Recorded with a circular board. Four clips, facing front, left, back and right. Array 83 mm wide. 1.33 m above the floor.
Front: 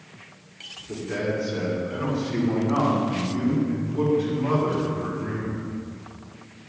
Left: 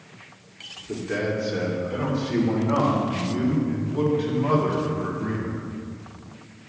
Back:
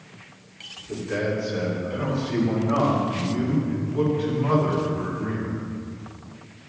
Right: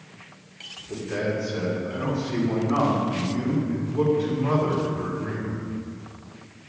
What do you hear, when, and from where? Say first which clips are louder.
0.9 s a man speaking: left 1 dB, back 1 dB; 85° left, 2.5 m; by 5.6 s 105° left, 5.5 m